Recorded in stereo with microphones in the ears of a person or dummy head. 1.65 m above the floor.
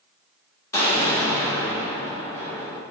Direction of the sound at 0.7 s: 15° left (ahead or behind).